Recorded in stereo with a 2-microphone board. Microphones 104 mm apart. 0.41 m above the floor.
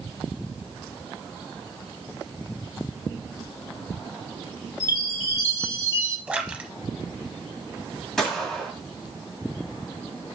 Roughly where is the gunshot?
Centre.